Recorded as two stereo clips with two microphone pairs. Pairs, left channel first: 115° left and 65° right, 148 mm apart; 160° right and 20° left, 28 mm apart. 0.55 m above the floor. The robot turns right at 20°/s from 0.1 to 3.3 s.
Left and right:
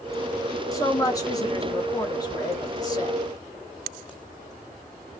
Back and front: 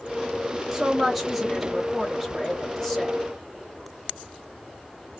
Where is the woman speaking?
85° left, 0.9 m; by 3.2 s 130° left, 0.9 m.